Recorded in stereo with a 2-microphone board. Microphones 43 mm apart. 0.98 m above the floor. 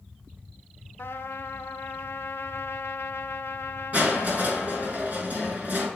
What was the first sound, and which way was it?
A trumpet, 70° left (ahead or behind).